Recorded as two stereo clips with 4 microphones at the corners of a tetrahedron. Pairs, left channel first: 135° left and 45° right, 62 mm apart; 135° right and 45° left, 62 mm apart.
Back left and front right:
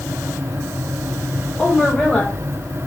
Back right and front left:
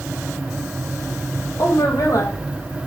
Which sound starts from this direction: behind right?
A woman speaking, at 1.6 s.